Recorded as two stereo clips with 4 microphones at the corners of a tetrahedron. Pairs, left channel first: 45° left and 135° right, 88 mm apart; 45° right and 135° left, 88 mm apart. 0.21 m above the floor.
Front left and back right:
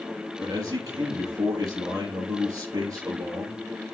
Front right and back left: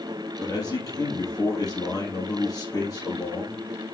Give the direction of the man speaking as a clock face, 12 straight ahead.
3 o'clock.